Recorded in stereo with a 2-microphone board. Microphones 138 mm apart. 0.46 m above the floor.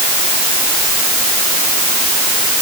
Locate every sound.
Only background noise.